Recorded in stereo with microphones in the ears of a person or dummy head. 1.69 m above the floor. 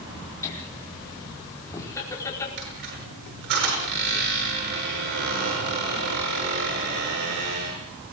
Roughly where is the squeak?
Right.